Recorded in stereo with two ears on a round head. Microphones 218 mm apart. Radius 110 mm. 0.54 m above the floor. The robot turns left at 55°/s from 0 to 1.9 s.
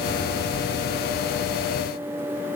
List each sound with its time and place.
Only background noise.